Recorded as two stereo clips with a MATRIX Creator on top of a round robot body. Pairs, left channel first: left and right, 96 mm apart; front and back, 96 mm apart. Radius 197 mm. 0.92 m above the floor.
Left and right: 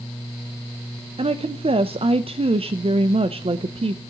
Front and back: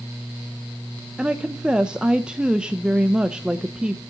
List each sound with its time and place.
1.2 s a woman speaking: 100° right, 0.7 m